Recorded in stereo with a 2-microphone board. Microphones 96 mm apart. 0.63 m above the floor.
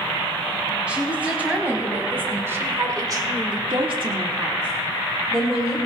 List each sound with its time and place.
0.9 s a woman speaking: 10° right (ahead or behind), 5 m; by 5.8 s 20° right (ahead or behind), 3.5 m